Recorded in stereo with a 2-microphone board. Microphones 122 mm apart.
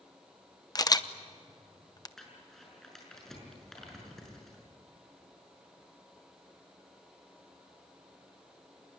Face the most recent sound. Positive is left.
turn(degrees=5)  # may be behind; listen again after turning